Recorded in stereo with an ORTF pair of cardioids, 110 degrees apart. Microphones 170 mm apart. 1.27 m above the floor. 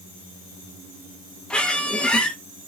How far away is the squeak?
About 0.7 m.